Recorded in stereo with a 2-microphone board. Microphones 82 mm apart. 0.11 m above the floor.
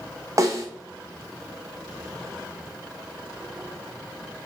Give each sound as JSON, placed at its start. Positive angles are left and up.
{"t": 0.4, "sound": "a snare drum", "side_deg": -40, "distance_m": 2.0}